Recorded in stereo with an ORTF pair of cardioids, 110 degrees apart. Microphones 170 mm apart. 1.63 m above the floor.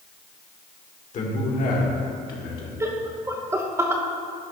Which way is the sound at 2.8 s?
15° right.